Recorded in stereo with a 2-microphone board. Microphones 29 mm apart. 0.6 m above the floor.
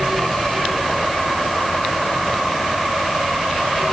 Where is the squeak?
I don't hear a squeak.